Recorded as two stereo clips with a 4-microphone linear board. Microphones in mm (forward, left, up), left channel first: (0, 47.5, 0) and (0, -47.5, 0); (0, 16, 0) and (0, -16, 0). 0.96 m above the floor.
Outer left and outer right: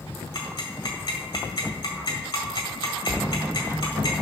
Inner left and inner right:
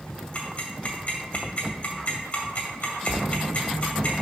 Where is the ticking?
55° left (ahead or behind), 2.0 m.